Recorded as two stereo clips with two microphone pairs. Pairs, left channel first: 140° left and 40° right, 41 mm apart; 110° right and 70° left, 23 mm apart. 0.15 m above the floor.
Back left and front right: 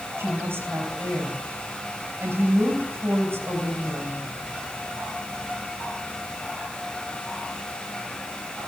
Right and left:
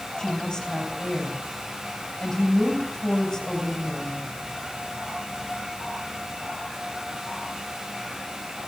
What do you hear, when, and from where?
0.2 s a woman speaking: 45° right, 7 m